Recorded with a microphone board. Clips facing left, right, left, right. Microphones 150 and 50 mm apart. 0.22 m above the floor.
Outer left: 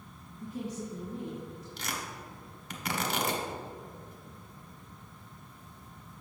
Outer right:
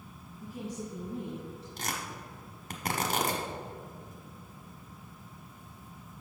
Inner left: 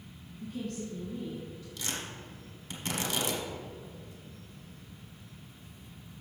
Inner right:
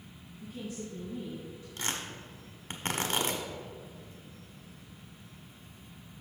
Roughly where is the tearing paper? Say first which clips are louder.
Outer right 1 dB, inner right 2 dB; right.